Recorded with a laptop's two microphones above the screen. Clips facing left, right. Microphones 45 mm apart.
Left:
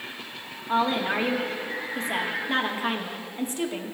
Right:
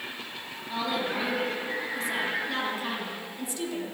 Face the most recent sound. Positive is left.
turn(degrees=40)  # may be behind; listen again after turning